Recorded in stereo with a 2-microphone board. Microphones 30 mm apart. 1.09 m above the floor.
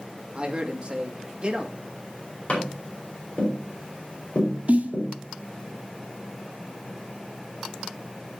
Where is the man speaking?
40° right (ahead or behind), 2 m.